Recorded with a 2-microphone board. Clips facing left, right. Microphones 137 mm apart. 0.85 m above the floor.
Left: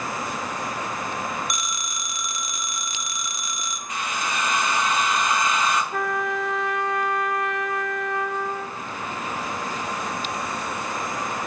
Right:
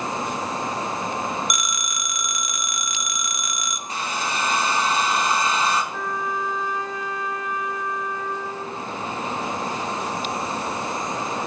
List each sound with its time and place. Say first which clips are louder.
1.5 s a phone ringing: right 2 dB; 30° left (ahead or behind), 0.6 m
3.9 s a hair dryer: right 1 dB; 30° right (ahead or behind), 0.7 m
5.9 s a trumpet: left 2 dB; 70° left (ahead or behind), 0.6 m